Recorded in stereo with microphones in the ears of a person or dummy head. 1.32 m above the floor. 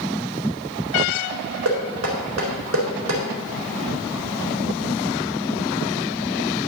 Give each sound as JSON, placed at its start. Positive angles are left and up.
{"t": 1.6, "sound": "knocking", "side_deg": -80, "distance_m": 4.0}